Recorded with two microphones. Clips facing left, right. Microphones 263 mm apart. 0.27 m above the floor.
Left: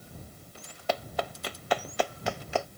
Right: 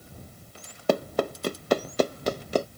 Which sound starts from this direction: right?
Running footsteps, at 0.9 s.